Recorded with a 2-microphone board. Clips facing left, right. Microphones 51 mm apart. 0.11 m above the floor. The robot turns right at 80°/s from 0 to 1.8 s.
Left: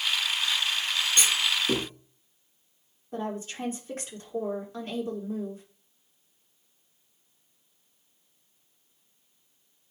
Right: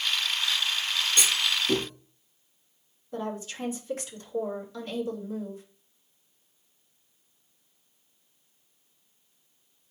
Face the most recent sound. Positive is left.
turn(degrees=40)  # may be behind; listen again after turning